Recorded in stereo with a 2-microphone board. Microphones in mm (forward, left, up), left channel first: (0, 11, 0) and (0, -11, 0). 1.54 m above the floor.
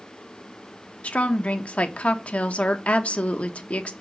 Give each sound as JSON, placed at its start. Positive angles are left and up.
{"t": 1.0, "sound": "a woman speaking", "side_deg": 70, "distance_m": 1.0}